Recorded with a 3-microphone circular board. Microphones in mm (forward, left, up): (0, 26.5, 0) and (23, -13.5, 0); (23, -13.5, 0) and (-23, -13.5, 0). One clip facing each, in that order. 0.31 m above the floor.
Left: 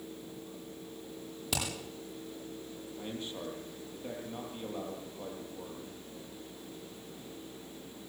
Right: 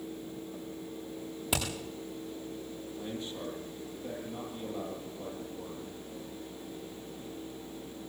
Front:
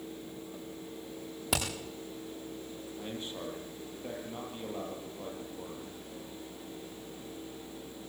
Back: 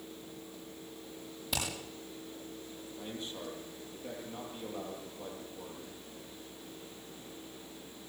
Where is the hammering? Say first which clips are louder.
Right 3 dB, front 4 dB; 10° left, 8.5 m.